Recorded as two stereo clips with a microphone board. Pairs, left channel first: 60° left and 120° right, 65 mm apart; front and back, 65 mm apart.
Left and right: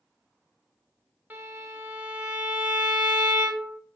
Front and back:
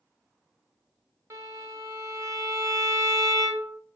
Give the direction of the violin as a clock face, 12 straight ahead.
6 o'clock.